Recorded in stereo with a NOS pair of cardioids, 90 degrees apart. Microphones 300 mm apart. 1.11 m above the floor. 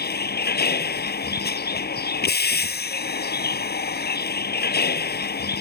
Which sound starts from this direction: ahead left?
A vehicle, at 0.0 s.